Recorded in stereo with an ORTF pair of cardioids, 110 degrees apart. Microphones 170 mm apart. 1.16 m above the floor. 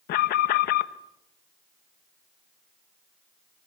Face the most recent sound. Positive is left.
turn(degrees=70)